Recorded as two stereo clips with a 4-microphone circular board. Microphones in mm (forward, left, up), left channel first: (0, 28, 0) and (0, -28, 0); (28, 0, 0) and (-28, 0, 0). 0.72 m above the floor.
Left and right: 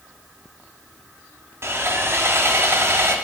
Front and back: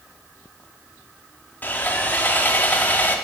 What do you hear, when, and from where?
1.6 s sawing: 60° right, 0.6 m